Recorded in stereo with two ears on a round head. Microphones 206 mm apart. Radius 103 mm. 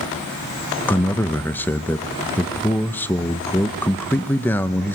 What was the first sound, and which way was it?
A man speaking, 10° left (ahead or behind).